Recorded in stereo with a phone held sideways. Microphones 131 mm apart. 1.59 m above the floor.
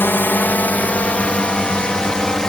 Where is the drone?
15° left (ahead or behind); by 2.5 s 5° left (ahead or behind).